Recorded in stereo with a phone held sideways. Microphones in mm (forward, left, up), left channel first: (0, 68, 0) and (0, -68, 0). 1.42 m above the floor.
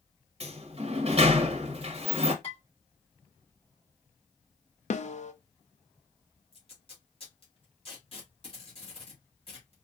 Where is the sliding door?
45° right (ahead or behind), 0.8 m.